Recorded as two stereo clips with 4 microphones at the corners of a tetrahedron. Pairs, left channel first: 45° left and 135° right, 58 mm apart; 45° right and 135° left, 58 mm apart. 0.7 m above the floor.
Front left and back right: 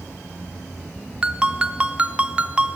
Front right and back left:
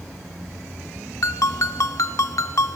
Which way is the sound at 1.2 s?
65° right.